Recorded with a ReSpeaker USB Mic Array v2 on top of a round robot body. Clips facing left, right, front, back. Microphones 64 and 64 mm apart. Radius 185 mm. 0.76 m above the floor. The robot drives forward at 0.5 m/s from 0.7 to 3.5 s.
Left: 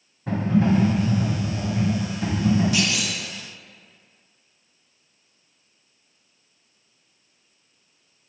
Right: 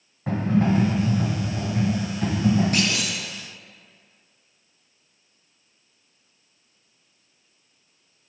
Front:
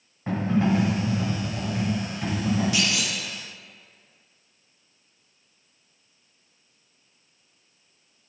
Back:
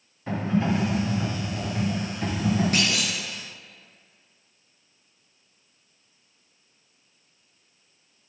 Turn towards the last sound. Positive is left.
turn(degrees=-155)